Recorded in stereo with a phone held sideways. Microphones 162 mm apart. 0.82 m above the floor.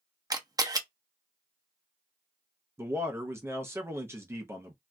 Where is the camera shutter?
20° right (ahead or behind), 0.6 m.